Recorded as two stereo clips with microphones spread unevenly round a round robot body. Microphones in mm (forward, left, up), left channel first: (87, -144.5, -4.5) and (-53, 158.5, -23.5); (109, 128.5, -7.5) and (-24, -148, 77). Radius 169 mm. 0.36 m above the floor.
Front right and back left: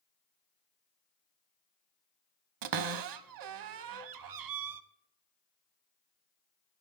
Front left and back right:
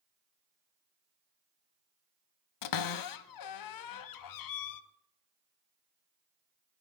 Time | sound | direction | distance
2.6 | a cupboard door | 85° left | 0.7 m